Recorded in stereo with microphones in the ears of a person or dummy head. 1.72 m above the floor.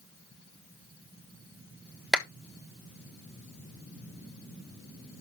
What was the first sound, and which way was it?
A clap, 10° left (ahead or behind).